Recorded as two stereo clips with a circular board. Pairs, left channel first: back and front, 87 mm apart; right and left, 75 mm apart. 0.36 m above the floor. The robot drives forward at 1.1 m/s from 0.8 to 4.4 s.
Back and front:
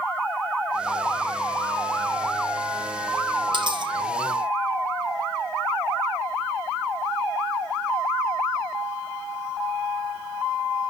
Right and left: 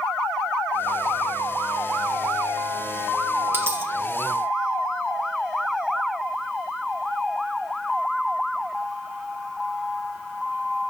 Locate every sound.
3.5 s a dropped coin: 30° left, 6 m